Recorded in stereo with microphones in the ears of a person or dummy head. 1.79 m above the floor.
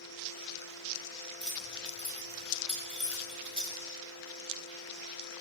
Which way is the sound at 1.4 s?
5° left (ahead or behind).